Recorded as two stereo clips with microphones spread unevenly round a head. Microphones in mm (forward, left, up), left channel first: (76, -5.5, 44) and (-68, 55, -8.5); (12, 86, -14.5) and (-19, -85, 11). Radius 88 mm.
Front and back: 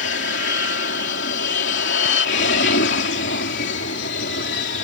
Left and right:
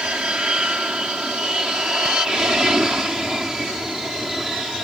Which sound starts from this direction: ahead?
An aircraft, at 0.0 s.